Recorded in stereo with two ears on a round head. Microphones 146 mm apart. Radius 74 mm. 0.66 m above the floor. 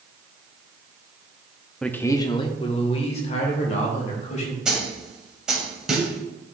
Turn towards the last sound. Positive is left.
turn(degrees=-5)  # may be behind; listen again after turning